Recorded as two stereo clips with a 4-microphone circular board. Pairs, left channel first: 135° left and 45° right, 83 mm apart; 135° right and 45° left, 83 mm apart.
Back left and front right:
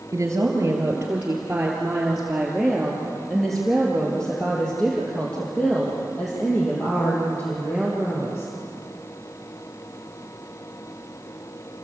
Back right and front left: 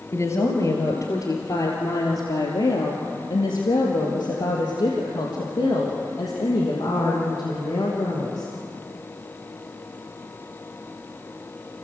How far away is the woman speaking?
About 2.5 m.